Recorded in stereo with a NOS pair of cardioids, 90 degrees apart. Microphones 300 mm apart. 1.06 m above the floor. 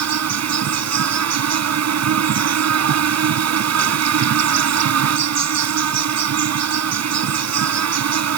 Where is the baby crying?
No baby crying in this recording.